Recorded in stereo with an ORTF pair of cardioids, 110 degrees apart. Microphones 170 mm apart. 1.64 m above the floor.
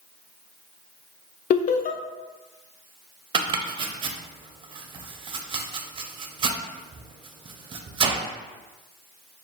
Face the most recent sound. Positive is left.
turn(degrees=-30)